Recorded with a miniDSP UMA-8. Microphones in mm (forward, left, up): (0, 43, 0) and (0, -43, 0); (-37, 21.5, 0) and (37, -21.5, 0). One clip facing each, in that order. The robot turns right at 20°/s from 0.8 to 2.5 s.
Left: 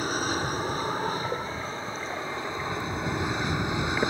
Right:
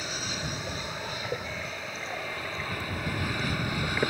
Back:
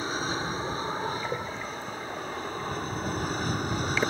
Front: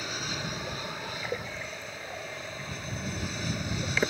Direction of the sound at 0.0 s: 110° left.